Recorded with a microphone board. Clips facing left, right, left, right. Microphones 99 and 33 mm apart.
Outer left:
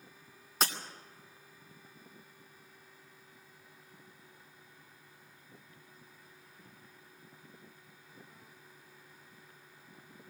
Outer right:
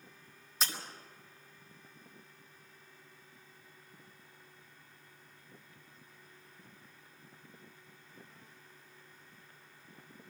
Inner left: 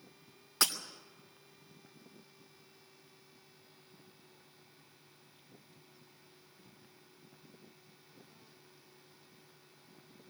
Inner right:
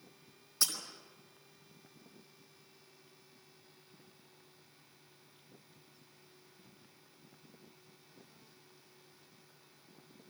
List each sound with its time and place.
0.6 s breaking glass: 60° left (ahead or behind), 2.5 m